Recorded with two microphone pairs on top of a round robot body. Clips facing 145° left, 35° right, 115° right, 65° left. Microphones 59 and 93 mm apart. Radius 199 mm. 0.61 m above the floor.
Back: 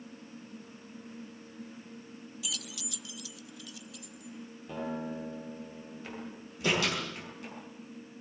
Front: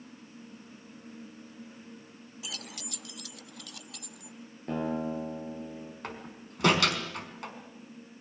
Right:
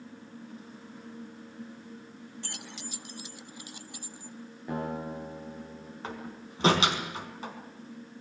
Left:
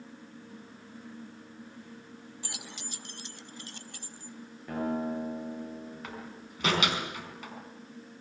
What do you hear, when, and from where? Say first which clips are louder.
2.4 s keys jangling: even, right 1 dB; 20° right, 0.6 m; by 4.4 s 40° right, 1.3 m
4.7 s a guitar: front 5 dB, left 3 dB; 40° right, 10 m
6.0 s a door slam: front 1 dB, right 3 dB; 55° right, 4.5 m